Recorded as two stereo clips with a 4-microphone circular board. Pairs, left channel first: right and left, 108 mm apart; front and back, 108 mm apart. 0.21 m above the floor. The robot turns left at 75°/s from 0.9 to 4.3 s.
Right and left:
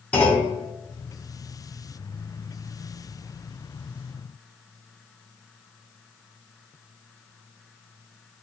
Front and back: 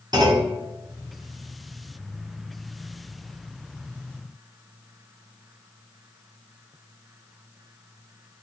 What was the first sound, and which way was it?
A clunk, 160° right.